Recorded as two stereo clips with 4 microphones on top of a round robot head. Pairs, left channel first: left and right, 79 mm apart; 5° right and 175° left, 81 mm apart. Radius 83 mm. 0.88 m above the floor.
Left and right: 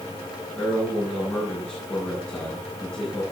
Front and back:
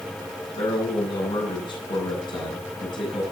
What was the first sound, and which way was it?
A man speaking, 10° left.